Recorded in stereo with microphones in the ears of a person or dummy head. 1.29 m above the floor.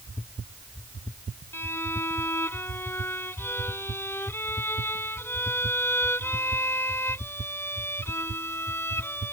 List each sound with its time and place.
1.5 s a violin: 10° left (ahead or behind)